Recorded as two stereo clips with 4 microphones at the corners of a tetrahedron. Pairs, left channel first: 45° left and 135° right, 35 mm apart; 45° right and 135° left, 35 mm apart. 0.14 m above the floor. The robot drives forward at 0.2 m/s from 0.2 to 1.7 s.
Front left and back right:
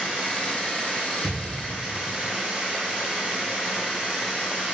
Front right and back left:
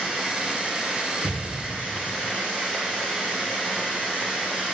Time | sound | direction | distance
0.0 | running water | 155° left | 1.5 m
1.2 | an explosion | 65° left | 1.2 m